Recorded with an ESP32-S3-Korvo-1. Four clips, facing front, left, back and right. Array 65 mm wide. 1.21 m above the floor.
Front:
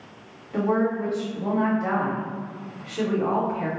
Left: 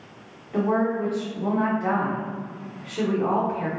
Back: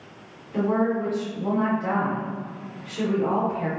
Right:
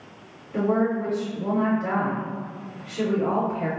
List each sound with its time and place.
0.5 s a woman speaking: 55° left, 1.2 m